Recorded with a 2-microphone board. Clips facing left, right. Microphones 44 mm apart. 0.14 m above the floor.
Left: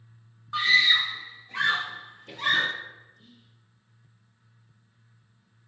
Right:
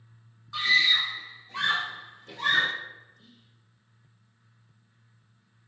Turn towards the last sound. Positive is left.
turn(degrees=40)  # may be behind; listen again after turning